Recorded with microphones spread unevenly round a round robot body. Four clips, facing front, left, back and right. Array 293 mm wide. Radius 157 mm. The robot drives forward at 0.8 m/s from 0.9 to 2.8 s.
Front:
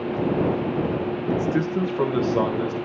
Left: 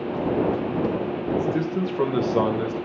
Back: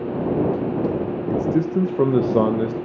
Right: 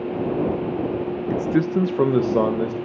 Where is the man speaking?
85° right, 0.8 m; by 2.8 s 160° right, 1.4 m.